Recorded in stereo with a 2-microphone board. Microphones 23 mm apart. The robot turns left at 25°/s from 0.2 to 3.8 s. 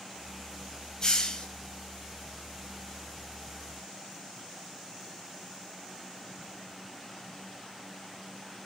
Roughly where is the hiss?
Left.